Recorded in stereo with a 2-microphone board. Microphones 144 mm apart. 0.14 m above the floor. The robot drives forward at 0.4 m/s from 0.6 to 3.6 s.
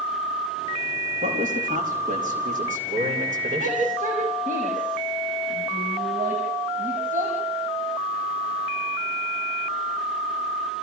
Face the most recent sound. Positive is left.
turn(degrees=-75)  # may be behind; listen again after turning